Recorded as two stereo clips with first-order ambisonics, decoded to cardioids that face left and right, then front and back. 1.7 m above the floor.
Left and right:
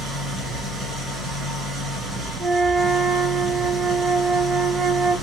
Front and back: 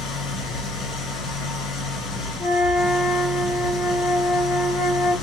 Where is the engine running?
20° right, 2.5 m.